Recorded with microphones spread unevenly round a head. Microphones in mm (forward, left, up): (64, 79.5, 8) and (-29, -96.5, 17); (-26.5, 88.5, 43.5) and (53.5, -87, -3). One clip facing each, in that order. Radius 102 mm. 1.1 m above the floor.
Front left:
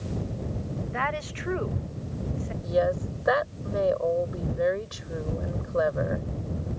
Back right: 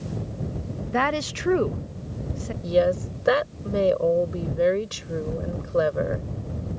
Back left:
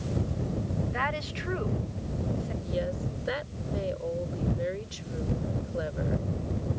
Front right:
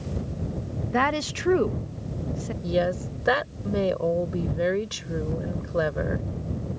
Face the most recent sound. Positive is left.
turn(degrees=-70)